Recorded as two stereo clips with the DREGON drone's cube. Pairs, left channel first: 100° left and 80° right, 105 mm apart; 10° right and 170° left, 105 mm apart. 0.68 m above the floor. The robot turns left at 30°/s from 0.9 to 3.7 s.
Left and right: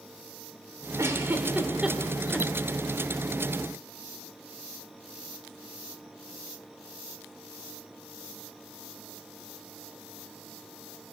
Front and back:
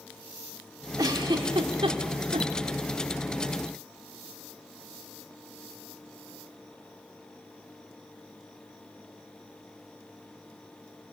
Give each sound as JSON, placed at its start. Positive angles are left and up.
{"t": 1.0, "sound": "a giggle", "azimuth_deg": -140, "distance_m": 2.0}